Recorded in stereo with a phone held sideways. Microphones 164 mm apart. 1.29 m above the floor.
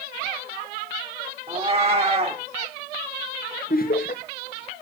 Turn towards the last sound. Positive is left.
turn(degrees=60)  # may be behind; listen again after turning